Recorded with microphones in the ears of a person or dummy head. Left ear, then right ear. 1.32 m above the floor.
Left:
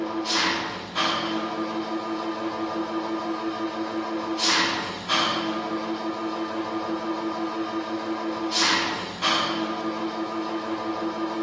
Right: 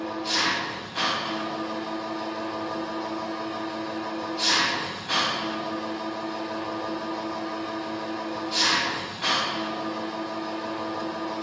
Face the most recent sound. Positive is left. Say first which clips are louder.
# left 1 dB
turn(degrees=20)  # may be behind; listen again after turning